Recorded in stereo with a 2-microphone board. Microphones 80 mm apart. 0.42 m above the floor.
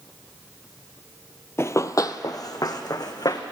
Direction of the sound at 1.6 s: 35° left (ahead or behind).